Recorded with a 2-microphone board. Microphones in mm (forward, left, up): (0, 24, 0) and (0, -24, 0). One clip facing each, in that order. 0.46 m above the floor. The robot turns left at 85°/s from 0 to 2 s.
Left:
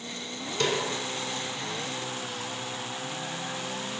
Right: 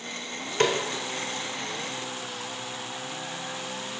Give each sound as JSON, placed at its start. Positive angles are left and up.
{"t": 0.6, "sound": "a snare drum", "side_deg": -45, "distance_m": 1.2}